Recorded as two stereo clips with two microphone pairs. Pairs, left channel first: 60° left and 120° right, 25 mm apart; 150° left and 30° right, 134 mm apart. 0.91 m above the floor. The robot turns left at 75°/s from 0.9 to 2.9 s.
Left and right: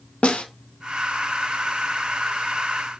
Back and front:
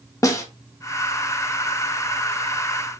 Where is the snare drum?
85° left, 0.7 m.